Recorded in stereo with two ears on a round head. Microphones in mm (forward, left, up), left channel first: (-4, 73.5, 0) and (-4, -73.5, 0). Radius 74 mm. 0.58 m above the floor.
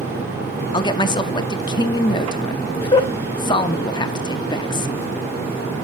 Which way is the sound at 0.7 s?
25° left (ahead or behind).